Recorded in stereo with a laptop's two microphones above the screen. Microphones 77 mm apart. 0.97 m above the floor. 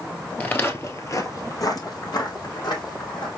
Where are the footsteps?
20° left (ahead or behind), 1.2 m; by 3.3 s 65° left (ahead or behind), 2.5 m.